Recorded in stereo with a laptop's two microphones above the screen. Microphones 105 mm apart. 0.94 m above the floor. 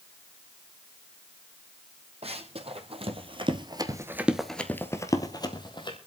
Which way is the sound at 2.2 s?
70° right (ahead or behind).